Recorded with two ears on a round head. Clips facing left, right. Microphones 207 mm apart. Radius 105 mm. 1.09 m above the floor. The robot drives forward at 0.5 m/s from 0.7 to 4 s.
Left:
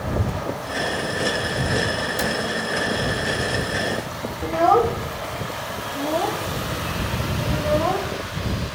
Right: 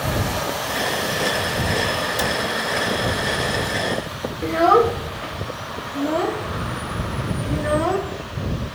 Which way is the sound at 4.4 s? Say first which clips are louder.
Right 2 dB; 20° right (ahead or behind).